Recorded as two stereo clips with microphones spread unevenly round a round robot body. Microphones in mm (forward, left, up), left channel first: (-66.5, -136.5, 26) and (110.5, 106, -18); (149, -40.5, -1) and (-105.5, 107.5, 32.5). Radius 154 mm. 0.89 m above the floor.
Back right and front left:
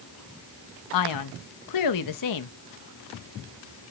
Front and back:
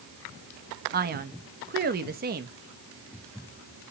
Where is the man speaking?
150° right, 1.0 m.